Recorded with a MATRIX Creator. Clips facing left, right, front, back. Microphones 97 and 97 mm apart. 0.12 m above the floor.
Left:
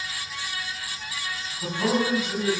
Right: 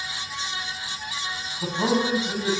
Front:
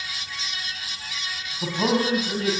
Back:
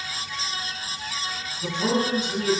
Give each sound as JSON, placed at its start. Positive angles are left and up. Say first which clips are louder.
{"t": 1.6, "sound": "a man speaking", "louder": "right 1 dB, front 2 dB", "azimuth_deg": -30, "distance_m": 7.0}